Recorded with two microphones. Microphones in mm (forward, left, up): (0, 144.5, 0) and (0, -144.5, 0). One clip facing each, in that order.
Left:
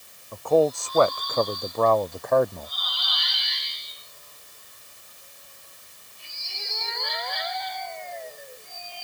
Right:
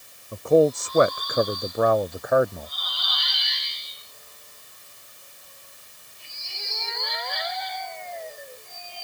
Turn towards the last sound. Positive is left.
turn(degrees=-5)  # may be behind; listen again after turning